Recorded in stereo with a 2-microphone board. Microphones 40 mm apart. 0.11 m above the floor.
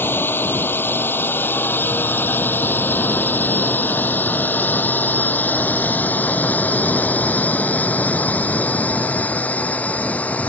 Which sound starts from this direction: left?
A drone, at 0.0 s.